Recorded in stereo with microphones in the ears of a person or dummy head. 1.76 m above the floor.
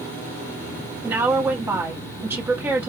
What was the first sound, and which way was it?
A woman speaking, 15° right (ahead or behind).